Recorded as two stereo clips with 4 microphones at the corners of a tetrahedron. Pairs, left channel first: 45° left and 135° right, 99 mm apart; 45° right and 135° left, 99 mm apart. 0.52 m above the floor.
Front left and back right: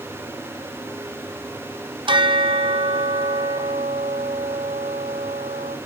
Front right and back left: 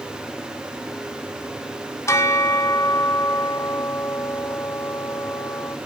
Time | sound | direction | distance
2.1 | a bell | 105° right | 0.9 m